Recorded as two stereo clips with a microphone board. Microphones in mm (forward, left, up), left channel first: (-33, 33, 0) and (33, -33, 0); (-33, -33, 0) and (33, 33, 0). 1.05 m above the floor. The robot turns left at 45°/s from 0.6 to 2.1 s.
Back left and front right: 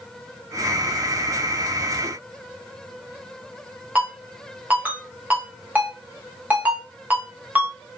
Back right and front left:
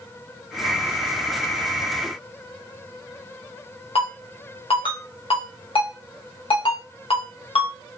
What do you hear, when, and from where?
4.0 s a ringtone: 120° right, 0.8 m